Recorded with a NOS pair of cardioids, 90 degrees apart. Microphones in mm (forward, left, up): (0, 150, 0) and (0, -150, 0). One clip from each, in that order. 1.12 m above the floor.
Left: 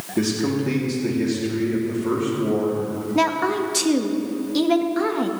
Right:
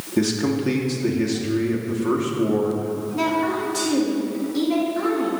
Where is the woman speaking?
65° left, 1.6 m.